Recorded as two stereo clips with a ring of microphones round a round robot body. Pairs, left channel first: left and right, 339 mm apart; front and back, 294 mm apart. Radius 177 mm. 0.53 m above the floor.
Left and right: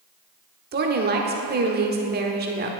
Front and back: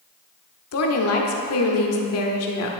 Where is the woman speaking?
30° right, 1.2 m.